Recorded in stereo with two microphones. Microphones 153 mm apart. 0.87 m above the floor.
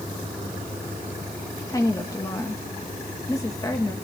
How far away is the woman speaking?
About 1.1 m.